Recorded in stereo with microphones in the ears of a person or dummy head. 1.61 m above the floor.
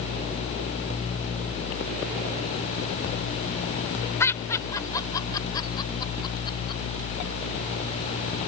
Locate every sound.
4.2 s laughter: 15° left (ahead or behind); by 6.8 s 25° left (ahead or behind)